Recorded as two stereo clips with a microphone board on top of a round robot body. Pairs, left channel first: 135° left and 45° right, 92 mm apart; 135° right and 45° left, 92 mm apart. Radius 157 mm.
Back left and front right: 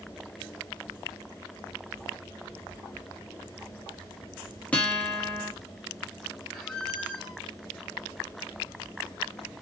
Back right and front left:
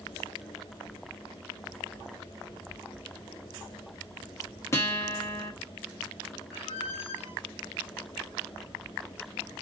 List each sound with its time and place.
4.7 s a guitar: 160° right, 1.5 m
6.5 s a squeak: 135° right, 1.5 m